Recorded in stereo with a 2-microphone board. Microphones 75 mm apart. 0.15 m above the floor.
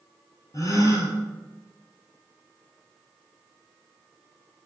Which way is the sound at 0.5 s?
45° left (ahead or behind).